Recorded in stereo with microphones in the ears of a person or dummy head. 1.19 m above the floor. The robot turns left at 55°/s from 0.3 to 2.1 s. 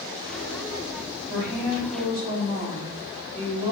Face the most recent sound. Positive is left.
turn(degrees=-165)